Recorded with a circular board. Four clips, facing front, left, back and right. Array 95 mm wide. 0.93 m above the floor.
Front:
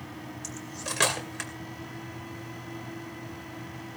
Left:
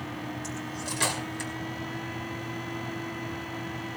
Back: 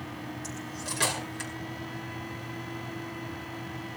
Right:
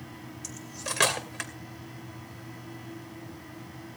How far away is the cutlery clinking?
About 2.5 m.